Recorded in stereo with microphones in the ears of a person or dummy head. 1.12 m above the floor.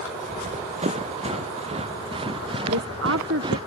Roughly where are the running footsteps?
Right.